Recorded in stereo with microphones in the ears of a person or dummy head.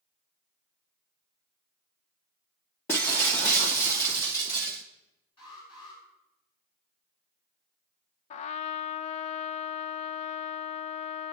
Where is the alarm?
30° left (ahead or behind), 9.5 m.